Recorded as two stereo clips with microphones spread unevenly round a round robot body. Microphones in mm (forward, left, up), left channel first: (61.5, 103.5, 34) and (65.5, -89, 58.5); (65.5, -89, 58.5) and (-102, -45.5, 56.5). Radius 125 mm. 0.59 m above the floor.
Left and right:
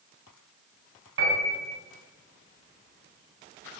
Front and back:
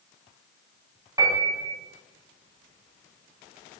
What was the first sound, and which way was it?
A piano, 125° right.